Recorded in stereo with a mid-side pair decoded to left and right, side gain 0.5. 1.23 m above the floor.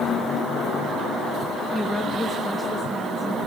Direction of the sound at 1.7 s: 10° left.